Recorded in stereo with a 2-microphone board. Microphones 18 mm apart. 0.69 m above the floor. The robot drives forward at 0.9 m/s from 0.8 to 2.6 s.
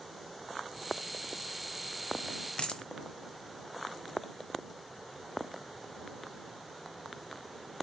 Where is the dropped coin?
75° left (ahead or behind), 1.2 m.